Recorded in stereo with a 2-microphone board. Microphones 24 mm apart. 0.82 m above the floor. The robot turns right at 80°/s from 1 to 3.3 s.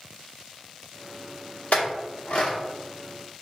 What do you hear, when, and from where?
1.7 s a clink: 70° left (ahead or behind), 0.8 m; by 2.6 s 30° left (ahead or behind), 0.8 m